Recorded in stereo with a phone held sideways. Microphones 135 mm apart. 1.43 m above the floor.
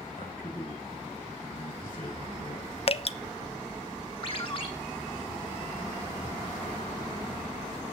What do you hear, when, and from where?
0.1 s a man speaking: 85° left, 7 m
2.9 s dripping: 45° left (ahead or behind), 0.6 m
4.2 s a ringtone: 40° left (ahead or behind), 2.5 m